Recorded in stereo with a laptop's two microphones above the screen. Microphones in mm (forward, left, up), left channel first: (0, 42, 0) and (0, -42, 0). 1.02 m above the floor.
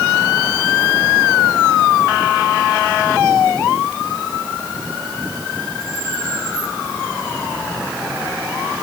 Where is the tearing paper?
No tearing paper in this recording.